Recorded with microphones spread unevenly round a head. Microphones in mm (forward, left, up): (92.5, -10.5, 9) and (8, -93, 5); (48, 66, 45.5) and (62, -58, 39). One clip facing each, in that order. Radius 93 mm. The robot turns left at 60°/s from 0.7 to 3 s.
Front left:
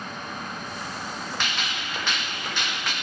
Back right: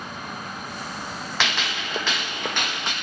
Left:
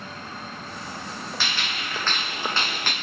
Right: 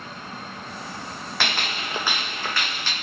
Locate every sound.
1.4 s a gunshot: 125° right, 1.3 m; by 2.9 s 145° left, 1.3 m